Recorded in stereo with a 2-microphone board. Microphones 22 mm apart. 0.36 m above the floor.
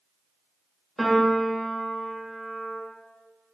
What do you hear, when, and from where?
1.0 s a piano: 5° right (ahead or behind), 0.8 m